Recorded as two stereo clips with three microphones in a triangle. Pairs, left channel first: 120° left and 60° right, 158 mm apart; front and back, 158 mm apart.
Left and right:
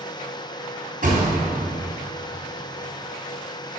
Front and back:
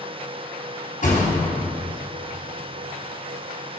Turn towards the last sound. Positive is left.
turn(degrees=-35)